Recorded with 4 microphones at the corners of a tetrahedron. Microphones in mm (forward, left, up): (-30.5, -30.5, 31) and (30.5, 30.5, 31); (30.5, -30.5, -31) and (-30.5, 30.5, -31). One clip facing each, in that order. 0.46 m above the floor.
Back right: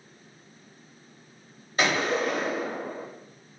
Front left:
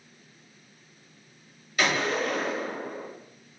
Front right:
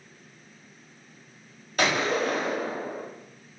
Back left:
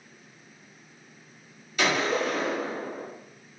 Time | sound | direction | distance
1.8 | a gunshot | 80° right | 1.4 m